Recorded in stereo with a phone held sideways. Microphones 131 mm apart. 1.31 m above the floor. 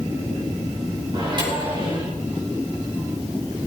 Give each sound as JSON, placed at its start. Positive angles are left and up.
{"t": 1.1, "sound": "a microwave", "side_deg": -40, "distance_m": 4.5}